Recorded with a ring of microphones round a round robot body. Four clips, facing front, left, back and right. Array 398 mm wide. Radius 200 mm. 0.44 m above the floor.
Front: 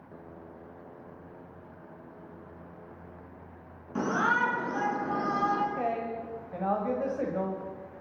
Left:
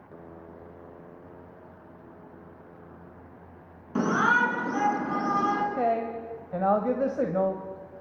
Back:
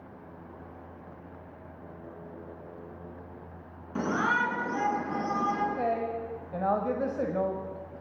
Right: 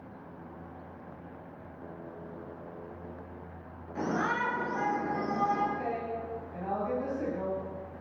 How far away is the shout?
About 7 m.